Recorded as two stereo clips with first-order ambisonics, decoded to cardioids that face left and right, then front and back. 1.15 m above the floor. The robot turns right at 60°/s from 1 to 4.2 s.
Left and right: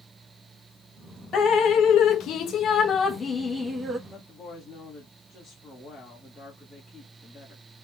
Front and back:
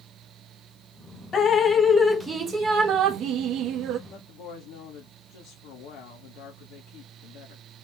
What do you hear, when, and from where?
1.3 s dripping: 45° left, 0.7 m; by 4.0 s 155° right, 0.7 m
4.1 s a woman speaking: 5° right, 1.5 m; by 7.6 s straight ahead, 1.5 m